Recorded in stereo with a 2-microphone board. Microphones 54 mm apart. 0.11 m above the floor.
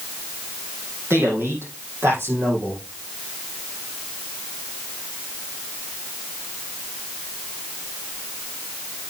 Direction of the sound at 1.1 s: 60° right (ahead or behind).